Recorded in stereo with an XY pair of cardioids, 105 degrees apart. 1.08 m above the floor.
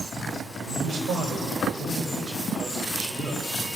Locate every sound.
0.7 s a man speaking: 60° right, 5 m; by 3.5 s 20° right, 4.5 m